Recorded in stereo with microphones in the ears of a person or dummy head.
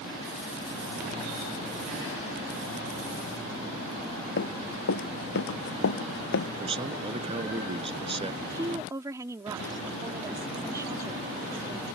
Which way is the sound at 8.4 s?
15° right (ahead or behind).